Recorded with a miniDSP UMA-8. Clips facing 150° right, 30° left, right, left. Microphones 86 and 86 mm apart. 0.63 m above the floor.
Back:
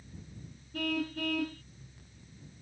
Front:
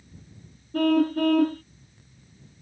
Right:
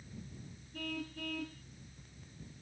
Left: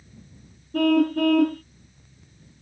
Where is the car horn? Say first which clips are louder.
Front 13 dB, left 24 dB; 70° left.